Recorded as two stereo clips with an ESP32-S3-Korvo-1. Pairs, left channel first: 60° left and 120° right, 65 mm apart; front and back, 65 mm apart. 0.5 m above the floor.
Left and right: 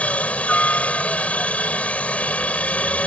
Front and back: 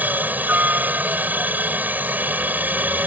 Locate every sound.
0.0 s a helicopter: 120° left